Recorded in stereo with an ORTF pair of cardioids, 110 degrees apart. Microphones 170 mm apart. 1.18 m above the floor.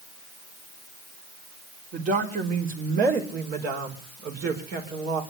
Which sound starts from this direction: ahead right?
A woman speaking, at 1.9 s.